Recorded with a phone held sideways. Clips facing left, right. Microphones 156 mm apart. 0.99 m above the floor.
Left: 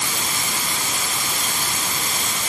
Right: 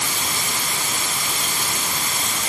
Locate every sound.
Only background noise.